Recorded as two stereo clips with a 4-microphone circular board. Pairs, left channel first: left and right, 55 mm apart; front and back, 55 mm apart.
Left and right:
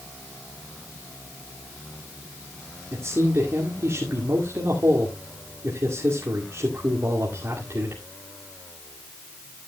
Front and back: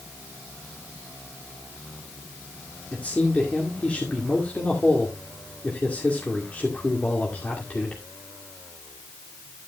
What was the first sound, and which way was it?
A man speaking, 65° right.